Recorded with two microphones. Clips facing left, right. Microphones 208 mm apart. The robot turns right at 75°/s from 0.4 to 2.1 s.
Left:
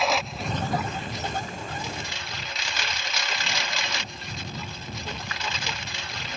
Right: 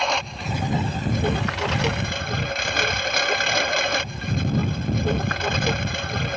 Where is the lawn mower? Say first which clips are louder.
Even; 175° left; by 6.4 s 55° right.